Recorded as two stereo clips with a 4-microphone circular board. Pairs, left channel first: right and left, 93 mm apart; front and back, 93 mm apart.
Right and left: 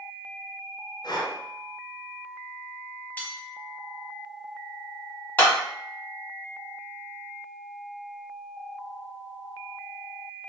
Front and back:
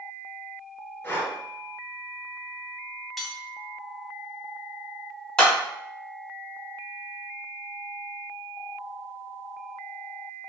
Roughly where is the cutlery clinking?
Right.